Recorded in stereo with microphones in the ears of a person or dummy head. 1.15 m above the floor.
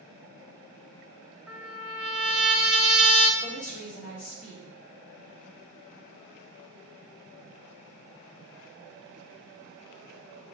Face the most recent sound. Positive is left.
turn(degrees=40)  # may be behind; listen again after turning